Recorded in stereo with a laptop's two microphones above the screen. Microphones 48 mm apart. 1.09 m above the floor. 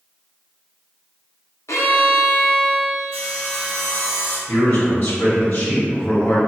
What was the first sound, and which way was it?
A violin, 75° left (ahead or behind).